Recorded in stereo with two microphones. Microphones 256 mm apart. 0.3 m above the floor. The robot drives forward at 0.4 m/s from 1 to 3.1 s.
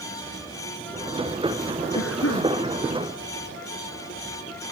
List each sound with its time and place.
1.9 s a cough: 65° left (ahead or behind)